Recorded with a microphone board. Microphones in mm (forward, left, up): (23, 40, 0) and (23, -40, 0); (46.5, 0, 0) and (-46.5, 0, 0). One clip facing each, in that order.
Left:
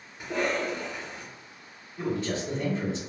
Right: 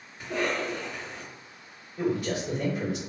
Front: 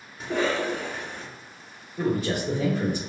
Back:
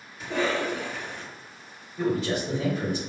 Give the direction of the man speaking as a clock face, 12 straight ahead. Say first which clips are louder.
Right 2 dB, even; 1 o'clock.